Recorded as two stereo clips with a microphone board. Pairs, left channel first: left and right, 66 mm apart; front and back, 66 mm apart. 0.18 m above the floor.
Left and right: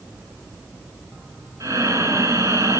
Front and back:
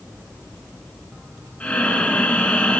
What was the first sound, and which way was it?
Breathing, 65° right.